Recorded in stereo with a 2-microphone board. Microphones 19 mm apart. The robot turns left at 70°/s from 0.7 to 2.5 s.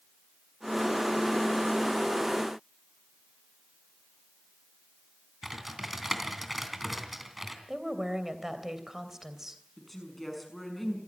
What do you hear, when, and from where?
5.4 s typing on a keyboard: 10° right (ahead or behind), 3 m
7.7 s a woman speaking: 20° right (ahead or behind), 3 m
9.8 s a woman speaking: 10° left (ahead or behind), 6 m